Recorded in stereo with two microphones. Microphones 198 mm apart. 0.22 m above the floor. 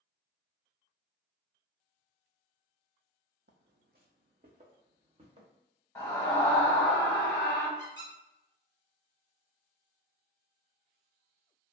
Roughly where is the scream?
Centre.